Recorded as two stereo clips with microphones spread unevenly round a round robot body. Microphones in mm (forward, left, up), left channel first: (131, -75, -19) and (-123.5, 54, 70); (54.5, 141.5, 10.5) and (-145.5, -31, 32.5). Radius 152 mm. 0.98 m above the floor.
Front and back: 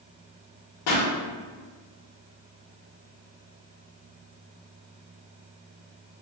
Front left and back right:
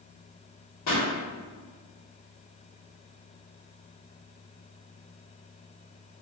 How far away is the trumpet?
No trumpet in this recording.